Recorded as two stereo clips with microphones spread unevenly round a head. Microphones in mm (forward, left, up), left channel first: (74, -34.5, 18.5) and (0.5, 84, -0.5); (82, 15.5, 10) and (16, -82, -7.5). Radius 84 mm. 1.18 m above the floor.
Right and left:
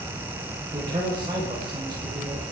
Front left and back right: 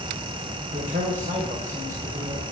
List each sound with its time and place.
0.7 s a man speaking: 170° right, 4.5 m